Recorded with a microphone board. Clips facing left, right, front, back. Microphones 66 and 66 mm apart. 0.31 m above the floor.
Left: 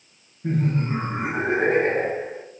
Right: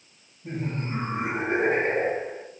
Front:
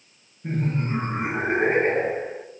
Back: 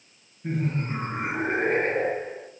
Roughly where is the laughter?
Left.